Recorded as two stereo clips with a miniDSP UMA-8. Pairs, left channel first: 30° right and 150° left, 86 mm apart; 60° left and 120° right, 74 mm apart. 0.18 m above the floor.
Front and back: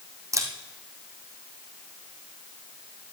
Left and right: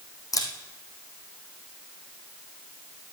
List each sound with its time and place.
0.3 s a camera shutter: 100° left, 2.5 m